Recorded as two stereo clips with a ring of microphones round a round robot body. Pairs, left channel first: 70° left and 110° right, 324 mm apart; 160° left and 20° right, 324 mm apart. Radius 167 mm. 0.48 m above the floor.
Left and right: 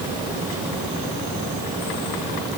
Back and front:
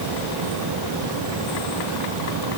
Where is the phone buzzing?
No phone buzzing in this recording.